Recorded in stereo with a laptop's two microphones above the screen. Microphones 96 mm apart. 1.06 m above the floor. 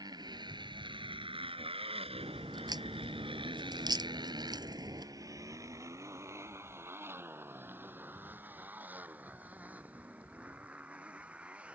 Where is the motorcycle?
45° right (ahead or behind); by 11.8 s 10° right (ahead or behind).